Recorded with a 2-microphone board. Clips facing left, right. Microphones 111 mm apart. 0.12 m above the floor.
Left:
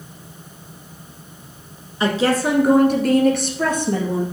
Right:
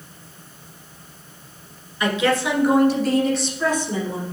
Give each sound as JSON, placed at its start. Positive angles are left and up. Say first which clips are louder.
{"t": 2.0, "sound": "a woman speaking", "louder": "left 2 dB", "side_deg": 30, "distance_m": 1.4}